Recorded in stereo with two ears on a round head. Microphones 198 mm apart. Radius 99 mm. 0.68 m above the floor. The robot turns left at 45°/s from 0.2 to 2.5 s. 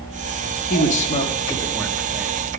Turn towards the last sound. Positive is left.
turn(degrees=-25)